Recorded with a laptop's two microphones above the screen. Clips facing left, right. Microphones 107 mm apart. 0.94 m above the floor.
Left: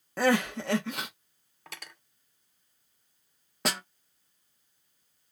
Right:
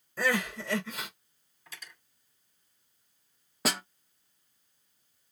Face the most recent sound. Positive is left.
turn(degrees=0)  # may be behind; listen again after turning